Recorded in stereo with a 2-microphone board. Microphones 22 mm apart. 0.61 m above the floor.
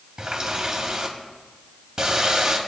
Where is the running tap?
45° right (ahead or behind), 2.5 m.